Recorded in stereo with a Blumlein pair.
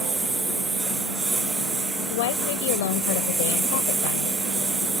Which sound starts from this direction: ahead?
A lawn mower, at 0.0 s.